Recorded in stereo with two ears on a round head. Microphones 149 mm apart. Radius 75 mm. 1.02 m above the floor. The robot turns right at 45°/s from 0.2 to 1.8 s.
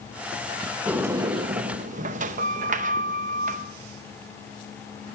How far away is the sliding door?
About 0.7 m.